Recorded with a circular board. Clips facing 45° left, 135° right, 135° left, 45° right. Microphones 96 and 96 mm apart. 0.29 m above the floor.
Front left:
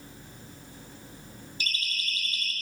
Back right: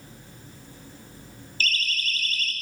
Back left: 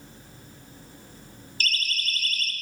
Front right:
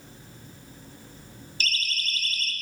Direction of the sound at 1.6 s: 115° left.